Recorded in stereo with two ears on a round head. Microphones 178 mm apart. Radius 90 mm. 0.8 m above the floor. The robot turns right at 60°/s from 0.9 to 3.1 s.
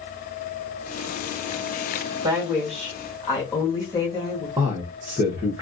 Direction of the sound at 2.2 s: 30° right.